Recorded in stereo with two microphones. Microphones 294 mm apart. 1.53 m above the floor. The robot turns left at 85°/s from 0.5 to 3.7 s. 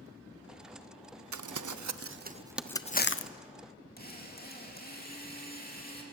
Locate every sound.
1.3 s crumpling: 70° right (ahead or behind), 0.5 m; by 3.3 s 55° left (ahead or behind), 0.5 m
4.0 s a drill: 30° left (ahead or behind), 2.5 m